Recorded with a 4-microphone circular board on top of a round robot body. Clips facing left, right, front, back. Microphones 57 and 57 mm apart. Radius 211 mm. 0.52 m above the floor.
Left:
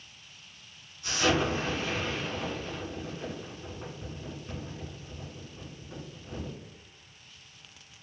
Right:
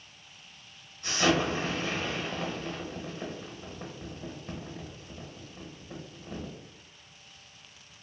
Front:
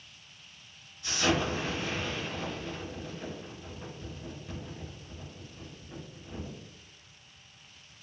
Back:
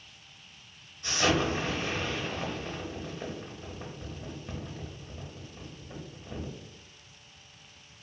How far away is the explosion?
About 0.6 m.